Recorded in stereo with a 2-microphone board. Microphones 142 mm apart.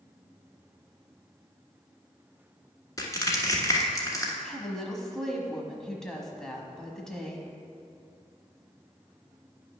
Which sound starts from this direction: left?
Crushing, at 3.0 s.